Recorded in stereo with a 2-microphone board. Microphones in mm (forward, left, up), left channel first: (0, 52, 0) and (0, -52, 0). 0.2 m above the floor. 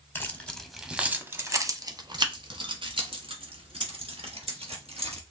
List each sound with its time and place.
0.1 s keys jangling: 20° left (ahead or behind), 0.8 m; by 5.2 s 70° right (ahead or behind), 2.5 m